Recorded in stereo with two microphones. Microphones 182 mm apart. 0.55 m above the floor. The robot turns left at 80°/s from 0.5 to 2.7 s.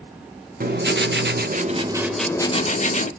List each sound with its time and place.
0.6 s writing: 55° right, 0.9 m; by 3.1 s 140° left, 0.9 m